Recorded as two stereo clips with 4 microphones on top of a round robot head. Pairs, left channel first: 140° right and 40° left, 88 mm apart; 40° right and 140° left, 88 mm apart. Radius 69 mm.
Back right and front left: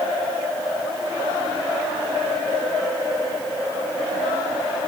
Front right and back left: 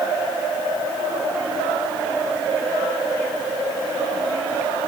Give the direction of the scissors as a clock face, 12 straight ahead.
No scissors in this recording.